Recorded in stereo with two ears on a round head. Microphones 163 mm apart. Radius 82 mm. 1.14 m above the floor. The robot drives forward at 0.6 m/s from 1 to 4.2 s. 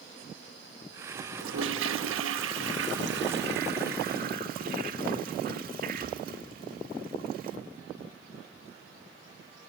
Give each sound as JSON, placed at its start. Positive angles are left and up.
{"t": 1.4, "sound": "a toilet flushing", "side_deg": -70, "distance_m": 1.7}